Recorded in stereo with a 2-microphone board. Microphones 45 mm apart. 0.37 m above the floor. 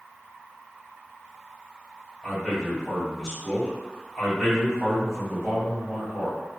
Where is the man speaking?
10° left (ahead or behind), 1.4 m.